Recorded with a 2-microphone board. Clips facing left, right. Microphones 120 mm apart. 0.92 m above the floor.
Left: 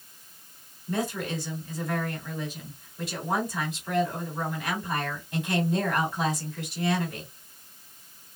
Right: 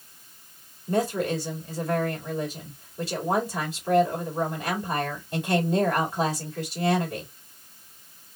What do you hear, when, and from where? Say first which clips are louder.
0.9 s a woman speaking: right 5 dB; 35° right (ahead or behind), 2.5 m